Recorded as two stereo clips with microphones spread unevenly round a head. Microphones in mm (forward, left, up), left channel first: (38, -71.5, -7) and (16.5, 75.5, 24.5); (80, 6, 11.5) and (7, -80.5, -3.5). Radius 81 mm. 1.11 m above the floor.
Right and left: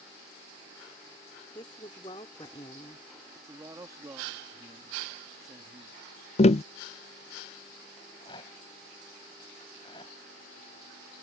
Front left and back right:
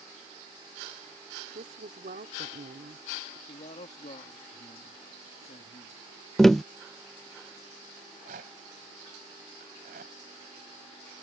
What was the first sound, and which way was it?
A woman speaking, 145° right.